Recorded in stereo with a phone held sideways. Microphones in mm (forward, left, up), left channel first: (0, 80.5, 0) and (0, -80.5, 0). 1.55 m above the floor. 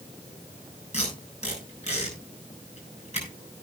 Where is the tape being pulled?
45° left (ahead or behind), 7.5 m.